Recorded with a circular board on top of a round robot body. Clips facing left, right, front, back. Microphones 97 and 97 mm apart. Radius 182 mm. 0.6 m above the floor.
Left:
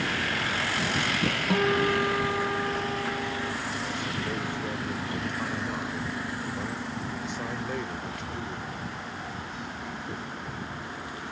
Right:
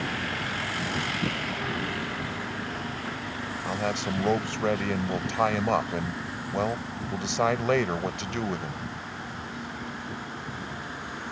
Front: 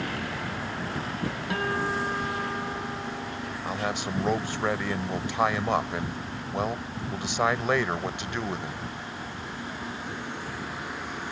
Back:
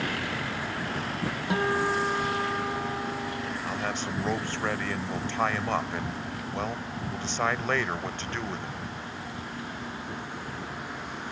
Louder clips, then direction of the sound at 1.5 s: Left 8 dB, back 3 dB; 110° left.